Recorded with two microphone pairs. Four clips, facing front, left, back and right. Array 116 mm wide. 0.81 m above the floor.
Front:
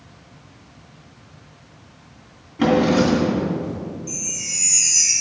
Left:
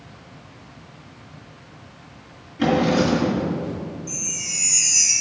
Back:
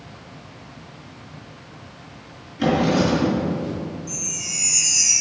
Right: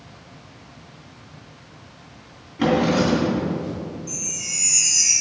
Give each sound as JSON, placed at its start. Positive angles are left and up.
{"t": 2.6, "sound": "a drawer", "azimuth_deg": -35, "distance_m": 2.5}
{"t": 4.1, "sound": "a chime", "azimuth_deg": 0, "distance_m": 2.5}